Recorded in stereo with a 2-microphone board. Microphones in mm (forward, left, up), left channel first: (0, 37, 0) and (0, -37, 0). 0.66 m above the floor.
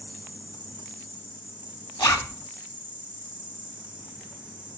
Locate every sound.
0.0 s an insect: 25° right (ahead or behind), 4.5 m
2.0 s a zipper: 65° left (ahead or behind), 2.5 m